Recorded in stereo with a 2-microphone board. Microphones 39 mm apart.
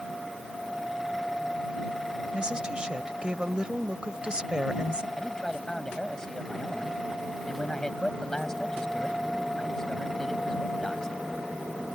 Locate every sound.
2.3 s a woman speaking: 25° right (ahead or behind)
5.2 s a man speaking: 15° left (ahead or behind)